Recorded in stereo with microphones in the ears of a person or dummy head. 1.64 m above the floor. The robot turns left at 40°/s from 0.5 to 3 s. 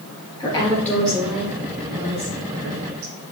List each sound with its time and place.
0.4 s a woman speaking: 20° left (ahead or behind), 1.3 m; by 3.1 s 70° right (ahead or behind), 1.3 m